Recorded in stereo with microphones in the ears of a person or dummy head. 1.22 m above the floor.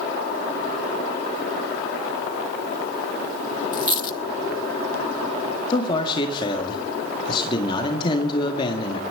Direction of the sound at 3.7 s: 30° left (ahead or behind).